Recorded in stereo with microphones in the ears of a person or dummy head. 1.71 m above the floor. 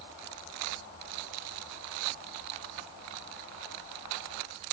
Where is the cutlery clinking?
I don't hear cutlery clinking.